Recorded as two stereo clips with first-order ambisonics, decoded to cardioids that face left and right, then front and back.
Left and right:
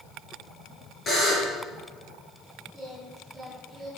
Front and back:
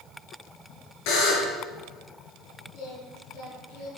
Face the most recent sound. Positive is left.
turn(degrees=-10)